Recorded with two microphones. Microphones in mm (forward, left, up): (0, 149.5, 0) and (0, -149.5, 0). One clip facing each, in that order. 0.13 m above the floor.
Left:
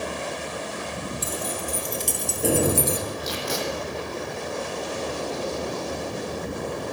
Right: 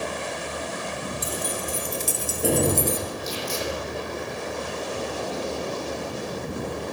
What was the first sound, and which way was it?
Keys jangling, 20° right (ahead or behind).